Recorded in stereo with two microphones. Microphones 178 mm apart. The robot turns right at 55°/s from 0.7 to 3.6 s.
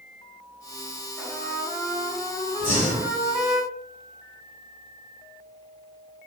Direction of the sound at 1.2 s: 15° left (ahead or behind).